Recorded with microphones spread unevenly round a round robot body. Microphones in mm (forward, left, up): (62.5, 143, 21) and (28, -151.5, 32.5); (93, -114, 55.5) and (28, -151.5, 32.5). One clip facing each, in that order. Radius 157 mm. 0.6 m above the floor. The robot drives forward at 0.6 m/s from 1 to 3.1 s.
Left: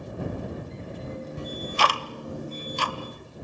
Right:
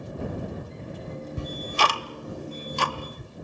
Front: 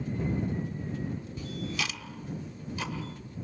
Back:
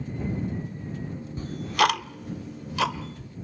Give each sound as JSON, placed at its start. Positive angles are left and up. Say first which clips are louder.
{"t": 1.4, "sound": "ticking", "louder": "even, back 15 dB", "azimuth_deg": -90, "distance_m": 0.6}